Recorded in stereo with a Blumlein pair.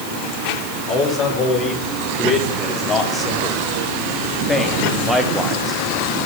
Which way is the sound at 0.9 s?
25° left.